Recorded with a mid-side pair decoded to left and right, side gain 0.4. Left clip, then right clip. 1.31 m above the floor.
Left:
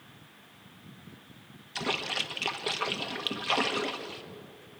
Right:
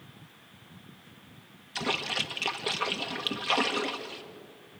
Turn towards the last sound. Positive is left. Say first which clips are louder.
# right 1 dB
turn(degrees=-5)